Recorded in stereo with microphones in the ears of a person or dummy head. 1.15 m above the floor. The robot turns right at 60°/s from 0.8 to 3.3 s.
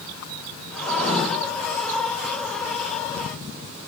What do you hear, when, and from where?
0.8 s writing: 65° right (ahead or behind), 4 m; by 1.2 s 40° right (ahead or behind), 4 m